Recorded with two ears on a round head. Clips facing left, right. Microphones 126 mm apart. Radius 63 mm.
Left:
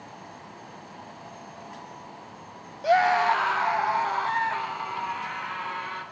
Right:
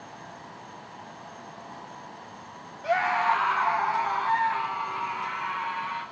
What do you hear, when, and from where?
2.8 s a scream: 40° left (ahead or behind), 0.7 m; by 6.0 s 45° left (ahead or behind), 4 m